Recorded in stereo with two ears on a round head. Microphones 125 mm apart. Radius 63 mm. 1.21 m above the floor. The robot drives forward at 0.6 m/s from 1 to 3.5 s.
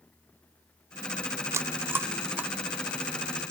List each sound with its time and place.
1.5 s chewing: 20° right (ahead or behind), 0.7 m; by 3.4 s 10° right (ahead or behind), 1.8 m